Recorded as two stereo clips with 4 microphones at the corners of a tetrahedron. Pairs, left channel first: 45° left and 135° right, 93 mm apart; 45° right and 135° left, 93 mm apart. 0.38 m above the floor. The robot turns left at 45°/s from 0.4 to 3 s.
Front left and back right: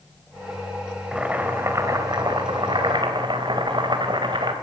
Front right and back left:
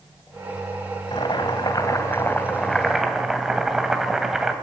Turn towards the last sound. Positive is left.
turn(degrees=-140)